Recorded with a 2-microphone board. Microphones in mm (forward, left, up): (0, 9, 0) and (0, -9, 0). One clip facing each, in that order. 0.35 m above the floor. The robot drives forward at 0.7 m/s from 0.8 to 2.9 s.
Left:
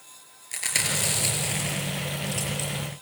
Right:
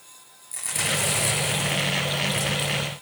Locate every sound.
0.5 s chewing: 45° left (ahead or behind), 6 m; by 3.0 s 35° left (ahead or behind), 7 m